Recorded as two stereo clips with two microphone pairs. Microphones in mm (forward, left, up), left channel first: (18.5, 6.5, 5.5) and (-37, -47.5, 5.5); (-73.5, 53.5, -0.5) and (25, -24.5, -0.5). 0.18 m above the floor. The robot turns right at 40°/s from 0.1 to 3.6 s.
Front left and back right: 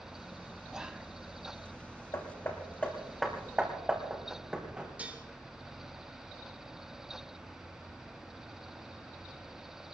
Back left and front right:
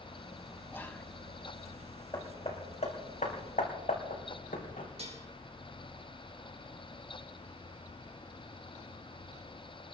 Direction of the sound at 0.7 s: 165° left.